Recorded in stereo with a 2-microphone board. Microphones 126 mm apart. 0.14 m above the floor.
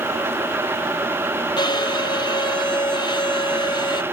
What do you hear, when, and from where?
1.6 s a violin: 35° left (ahead or behind), 1.1 m